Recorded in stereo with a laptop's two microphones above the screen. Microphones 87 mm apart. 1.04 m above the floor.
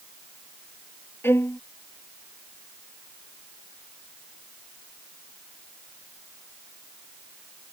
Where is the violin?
30° left (ahead or behind).